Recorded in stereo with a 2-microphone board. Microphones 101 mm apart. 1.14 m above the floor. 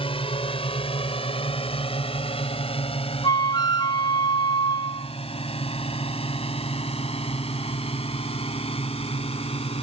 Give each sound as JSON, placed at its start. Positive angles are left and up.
{"t": 0.0, "sound": "a drone", "side_deg": 65}
{"t": 3.2, "sound": "a flute", "side_deg": 45}